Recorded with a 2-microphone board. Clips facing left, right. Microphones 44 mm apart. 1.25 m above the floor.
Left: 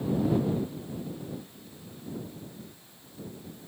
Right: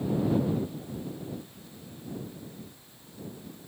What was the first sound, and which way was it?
Only background noise.